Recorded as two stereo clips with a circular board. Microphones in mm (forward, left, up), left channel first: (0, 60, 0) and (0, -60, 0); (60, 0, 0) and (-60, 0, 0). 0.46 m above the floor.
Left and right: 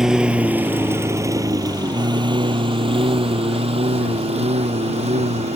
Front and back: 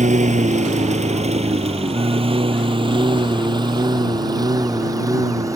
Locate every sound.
0.0 s a lawn mower: 175° right; by 5.6 s 115° right